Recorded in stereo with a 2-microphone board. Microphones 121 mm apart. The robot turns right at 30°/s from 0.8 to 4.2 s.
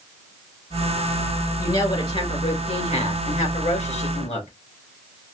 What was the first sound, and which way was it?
A woman speaking, 35° left.